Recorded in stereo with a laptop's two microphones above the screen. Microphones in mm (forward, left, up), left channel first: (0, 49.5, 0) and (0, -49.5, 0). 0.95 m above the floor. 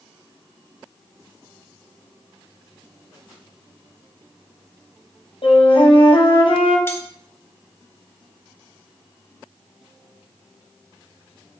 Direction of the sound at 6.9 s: 25° left (ahead or behind).